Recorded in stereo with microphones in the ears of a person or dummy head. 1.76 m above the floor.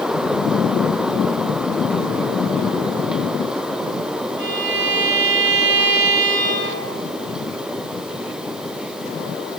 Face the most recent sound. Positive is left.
turn(degrees=-25)  # may be behind; listen again after turning